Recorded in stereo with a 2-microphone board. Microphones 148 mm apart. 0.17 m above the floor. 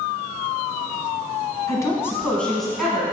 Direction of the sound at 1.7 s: 25° left (ahead or behind).